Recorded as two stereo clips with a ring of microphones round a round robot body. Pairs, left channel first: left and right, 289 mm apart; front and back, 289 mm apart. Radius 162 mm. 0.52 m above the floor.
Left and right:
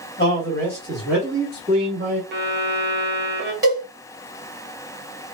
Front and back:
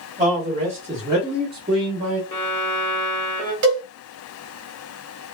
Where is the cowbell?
170° right, 1.5 m.